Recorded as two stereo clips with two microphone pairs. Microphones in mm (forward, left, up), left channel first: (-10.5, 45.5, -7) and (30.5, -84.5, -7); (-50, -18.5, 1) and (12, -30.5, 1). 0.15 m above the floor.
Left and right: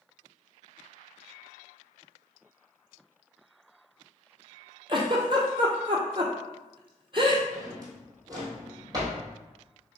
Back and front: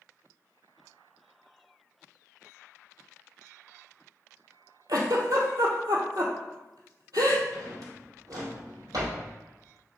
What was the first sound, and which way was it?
A giggle, 20° right.